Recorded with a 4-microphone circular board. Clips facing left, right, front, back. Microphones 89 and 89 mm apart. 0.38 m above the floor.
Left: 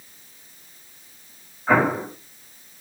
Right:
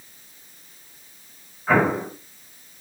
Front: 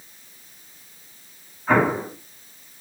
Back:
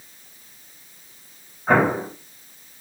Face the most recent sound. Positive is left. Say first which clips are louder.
# even, back 1 dB
turn(degrees=165)